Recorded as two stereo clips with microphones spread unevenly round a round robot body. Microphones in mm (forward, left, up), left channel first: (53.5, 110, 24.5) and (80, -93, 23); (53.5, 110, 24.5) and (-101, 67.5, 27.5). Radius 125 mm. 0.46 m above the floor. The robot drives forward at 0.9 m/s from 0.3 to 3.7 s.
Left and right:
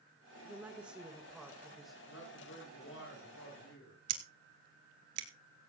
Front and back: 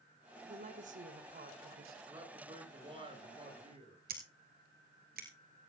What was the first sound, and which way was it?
A woman speaking, 160° right.